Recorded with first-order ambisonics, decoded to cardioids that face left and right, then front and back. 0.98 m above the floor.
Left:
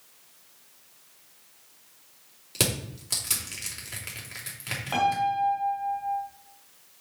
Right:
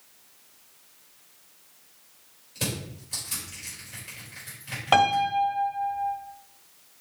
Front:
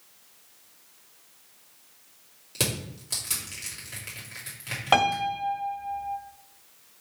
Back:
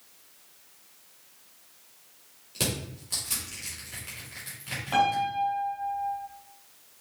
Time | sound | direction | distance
2.5 | crushing | 75° left | 3 m
4.9 | a piano | 40° right | 1.4 m